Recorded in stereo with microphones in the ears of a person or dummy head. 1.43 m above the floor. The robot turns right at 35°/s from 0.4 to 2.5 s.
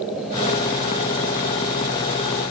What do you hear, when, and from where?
Only background noise.